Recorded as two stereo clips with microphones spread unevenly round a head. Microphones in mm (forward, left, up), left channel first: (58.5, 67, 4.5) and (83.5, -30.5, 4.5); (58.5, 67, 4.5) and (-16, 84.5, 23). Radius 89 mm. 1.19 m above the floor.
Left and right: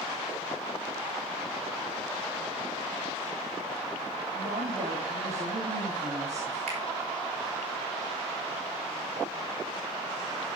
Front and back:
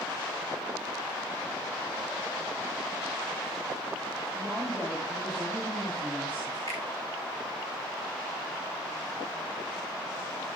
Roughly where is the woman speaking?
Right.